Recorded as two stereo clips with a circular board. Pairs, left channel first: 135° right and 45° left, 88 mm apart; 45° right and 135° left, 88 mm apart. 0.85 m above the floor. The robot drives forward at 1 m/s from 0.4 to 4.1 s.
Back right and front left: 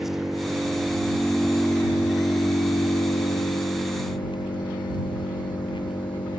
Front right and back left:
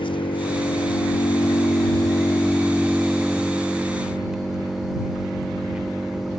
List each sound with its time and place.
0.0 s an engine running: 40° right, 2.5 m; by 6.4 s 145° right, 2.5 m